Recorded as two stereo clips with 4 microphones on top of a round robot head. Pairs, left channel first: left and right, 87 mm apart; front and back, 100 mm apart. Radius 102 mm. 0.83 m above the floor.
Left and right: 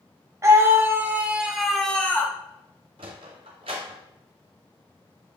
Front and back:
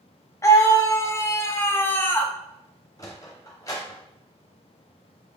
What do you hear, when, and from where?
0.4 s a scream: 50° right, 1.4 m; by 2.3 s 60° left, 1.1 m
3.0 s a sliding door: 65° right, 0.7 m